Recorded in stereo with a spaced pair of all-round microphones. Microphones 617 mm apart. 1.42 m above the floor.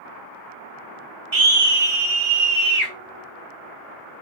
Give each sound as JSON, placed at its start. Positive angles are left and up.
{"t": 1.3, "sound": "a scream", "side_deg": -45, "distance_m": 0.6}